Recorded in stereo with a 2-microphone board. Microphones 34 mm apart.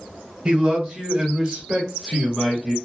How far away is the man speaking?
About 1.3 m.